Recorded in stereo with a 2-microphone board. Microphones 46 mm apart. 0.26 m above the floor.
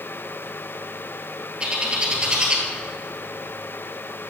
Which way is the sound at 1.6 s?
20° right (ahead or behind).